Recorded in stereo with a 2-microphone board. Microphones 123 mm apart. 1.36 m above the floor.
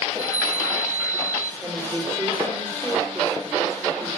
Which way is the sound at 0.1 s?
60° right (ahead or behind).